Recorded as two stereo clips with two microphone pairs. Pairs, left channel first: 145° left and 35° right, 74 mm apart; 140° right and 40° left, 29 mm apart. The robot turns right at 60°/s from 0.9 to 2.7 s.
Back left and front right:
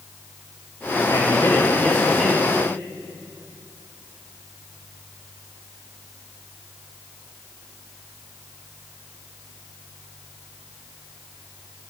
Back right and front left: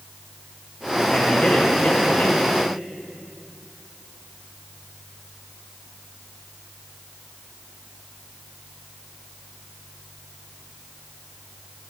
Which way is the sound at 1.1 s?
170° left.